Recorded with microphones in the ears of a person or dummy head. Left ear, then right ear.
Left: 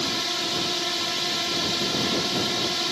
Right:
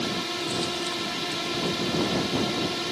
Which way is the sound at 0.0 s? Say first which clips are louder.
Left 3 dB; 30° left (ahead or behind).